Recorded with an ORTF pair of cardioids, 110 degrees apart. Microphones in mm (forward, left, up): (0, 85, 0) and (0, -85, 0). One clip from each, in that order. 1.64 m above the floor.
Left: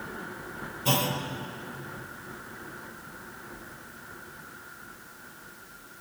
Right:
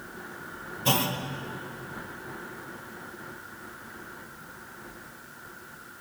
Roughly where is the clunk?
Ahead.